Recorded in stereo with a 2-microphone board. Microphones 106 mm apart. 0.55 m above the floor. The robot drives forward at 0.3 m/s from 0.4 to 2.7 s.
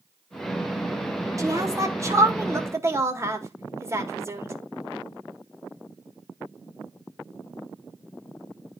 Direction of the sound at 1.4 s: 35° right (ahead or behind).